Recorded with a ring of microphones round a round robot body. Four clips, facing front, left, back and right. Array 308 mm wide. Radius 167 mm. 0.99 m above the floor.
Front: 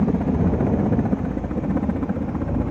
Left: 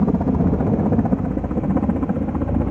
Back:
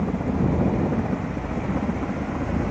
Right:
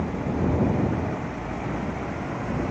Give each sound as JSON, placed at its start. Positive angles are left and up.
{"t": 0.0, "sound": "a helicopter", "azimuth_deg": 70}